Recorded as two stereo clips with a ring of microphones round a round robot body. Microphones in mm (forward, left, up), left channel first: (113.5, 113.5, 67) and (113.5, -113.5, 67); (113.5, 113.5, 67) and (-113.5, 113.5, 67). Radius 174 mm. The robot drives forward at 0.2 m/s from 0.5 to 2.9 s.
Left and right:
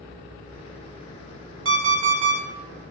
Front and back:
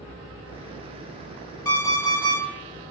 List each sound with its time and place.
1.6 s an alarm clock: 75° right, 0.7 m; by 2.4 s 85° right, 0.7 m